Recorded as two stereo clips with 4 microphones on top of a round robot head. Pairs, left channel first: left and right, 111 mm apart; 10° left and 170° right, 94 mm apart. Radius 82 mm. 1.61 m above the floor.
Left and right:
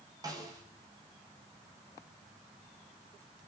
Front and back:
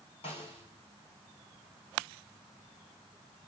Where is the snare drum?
35° right, 8 m.